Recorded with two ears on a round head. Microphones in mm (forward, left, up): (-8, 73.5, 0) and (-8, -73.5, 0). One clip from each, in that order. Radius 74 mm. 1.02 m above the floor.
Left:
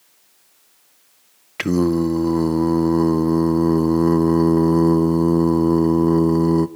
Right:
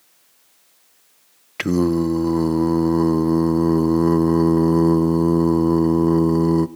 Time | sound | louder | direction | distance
1.6 | singing | even | centre (ahead or behind) | 0.6 m